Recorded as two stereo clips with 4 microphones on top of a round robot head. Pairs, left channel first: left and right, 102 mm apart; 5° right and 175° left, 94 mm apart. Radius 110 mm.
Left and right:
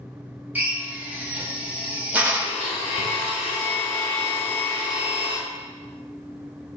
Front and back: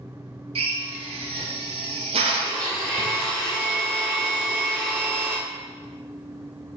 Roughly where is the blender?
Left.